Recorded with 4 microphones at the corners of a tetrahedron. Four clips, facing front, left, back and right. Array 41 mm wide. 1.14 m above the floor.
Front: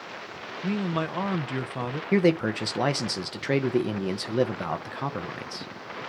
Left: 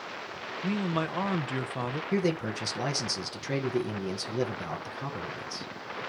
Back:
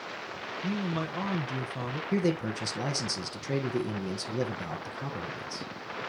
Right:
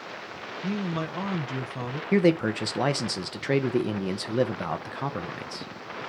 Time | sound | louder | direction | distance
0.6 | a man speaking | left 1 dB, front 5 dB | 40° left | 0.8 m
2.1 | a man speaking | right 8 dB, front 7 dB | 40° right | 0.9 m